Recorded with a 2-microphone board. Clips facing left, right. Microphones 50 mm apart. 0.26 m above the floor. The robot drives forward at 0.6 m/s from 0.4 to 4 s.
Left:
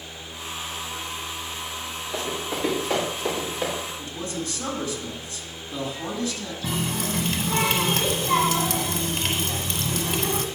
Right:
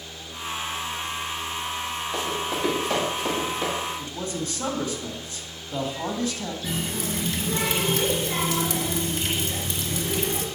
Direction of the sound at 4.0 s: 30° right (ahead or behind).